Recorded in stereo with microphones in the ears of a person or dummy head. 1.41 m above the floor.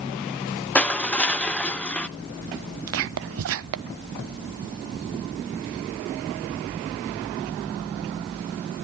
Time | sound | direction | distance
0.8 | crushing | 5° left (ahead or behind) | 0.5 m
2.9 | whispering | 65° right (ahead or behind) | 0.6 m